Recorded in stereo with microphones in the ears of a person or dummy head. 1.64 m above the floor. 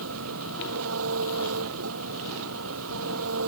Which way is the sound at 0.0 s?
80° right.